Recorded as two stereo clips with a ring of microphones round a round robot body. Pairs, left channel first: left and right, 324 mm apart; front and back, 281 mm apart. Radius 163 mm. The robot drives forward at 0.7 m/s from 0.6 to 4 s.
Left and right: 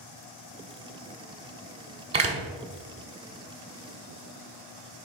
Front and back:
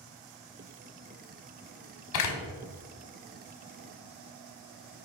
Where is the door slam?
20° right, 1.4 m.